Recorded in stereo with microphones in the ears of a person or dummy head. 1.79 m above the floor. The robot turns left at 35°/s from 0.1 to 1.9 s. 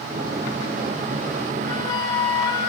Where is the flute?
30° left (ahead or behind), 1.7 m; by 2.7 s 25° left (ahead or behind), 1.7 m.